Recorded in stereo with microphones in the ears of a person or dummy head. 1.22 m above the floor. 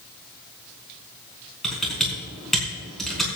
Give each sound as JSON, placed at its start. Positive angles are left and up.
{"t": 1.6, "sound": "typing on a keyboard", "side_deg": 0, "distance_m": 4.0}